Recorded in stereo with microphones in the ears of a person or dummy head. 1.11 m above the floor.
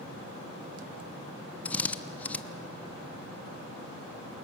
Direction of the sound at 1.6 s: 5° left (ahead or behind).